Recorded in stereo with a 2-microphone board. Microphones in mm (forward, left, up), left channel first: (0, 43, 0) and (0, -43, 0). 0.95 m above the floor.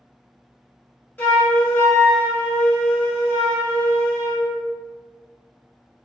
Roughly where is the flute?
Centre.